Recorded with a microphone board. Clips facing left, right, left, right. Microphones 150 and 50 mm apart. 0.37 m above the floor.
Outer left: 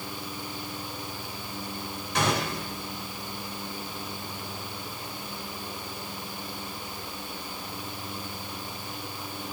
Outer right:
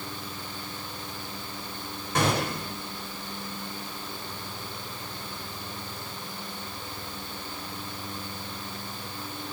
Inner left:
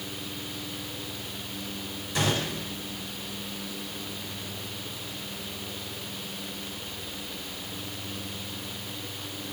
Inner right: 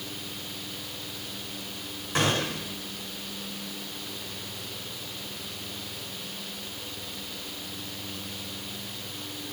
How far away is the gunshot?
About 4.5 m.